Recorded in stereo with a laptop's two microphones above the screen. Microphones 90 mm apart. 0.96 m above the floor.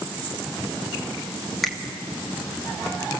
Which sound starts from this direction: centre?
A finger snap, at 1.6 s.